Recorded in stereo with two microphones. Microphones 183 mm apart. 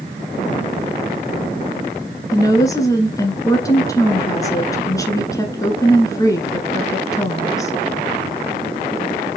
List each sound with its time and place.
2.3 s a woman speaking: 20° left (ahead or behind), 1.4 m